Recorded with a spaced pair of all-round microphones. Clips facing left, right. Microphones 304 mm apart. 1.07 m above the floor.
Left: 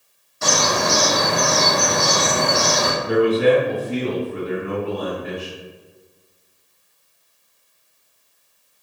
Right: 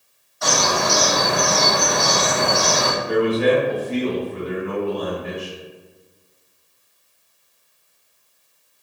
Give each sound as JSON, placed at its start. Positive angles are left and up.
{"t": 0.4, "sound": "a bird", "side_deg": 35, "distance_m": 0.7}
{"t": 3.1, "sound": "a man speaking", "side_deg": 20, "distance_m": 1.5}